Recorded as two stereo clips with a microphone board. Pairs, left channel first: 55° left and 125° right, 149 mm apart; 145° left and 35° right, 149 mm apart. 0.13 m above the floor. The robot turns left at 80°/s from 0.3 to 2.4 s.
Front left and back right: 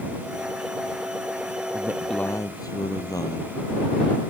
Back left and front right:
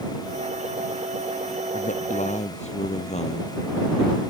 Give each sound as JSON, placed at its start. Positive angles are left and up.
{"t": 1.7, "sound": "a man speaking", "azimuth_deg": 170}